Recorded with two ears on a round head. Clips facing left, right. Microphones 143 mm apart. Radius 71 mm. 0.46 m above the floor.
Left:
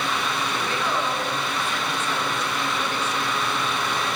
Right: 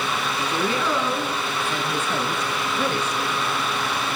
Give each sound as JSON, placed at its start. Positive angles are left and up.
{"t": 0.5, "sound": "a woman speaking", "side_deg": -70, "distance_m": 6.0}